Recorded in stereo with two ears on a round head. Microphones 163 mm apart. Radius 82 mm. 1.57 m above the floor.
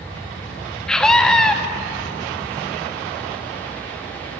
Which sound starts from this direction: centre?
A scream, at 0.9 s.